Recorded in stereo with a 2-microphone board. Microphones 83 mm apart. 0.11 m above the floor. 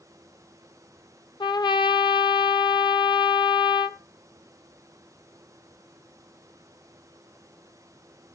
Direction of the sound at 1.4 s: 60° left (ahead or behind).